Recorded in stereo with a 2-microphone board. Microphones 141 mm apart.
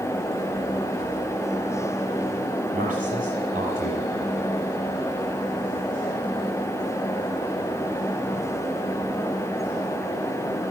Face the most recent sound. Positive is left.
turn(degrees=-50)  # may be behind; listen again after turning